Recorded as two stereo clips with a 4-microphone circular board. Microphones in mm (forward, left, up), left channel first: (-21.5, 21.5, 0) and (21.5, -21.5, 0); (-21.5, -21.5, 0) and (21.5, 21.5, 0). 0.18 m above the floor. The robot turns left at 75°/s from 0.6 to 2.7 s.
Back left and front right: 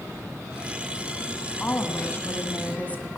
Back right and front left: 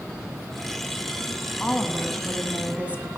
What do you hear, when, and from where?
1.6 s a woman speaking: 175° left, 1.2 m; by 3.2 s 95° left, 1.2 m